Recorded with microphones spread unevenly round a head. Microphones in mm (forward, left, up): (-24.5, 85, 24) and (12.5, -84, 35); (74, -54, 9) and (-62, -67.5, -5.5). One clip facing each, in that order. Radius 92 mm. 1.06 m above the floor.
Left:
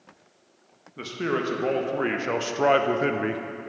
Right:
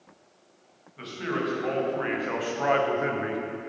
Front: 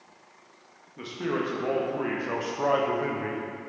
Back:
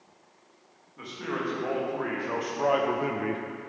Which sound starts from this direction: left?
A man speaking, at 1.0 s.